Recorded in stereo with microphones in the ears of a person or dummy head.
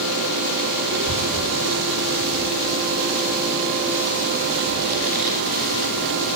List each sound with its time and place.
0.9 s a child speaking: 55° right (ahead or behind), 3.5 m; by 6.3 s 40° right (ahead or behind), 12 m